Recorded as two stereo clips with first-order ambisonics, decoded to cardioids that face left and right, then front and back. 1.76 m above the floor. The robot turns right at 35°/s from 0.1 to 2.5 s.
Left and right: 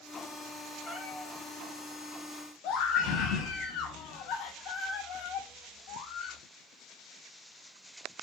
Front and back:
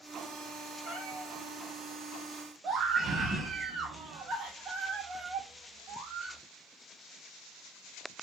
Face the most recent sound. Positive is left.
turn(degrees=120)